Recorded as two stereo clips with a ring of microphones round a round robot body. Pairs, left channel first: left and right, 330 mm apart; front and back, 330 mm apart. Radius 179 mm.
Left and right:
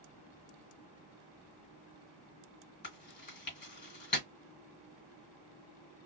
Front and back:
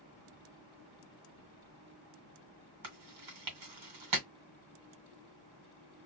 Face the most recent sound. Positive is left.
turn(degrees=155)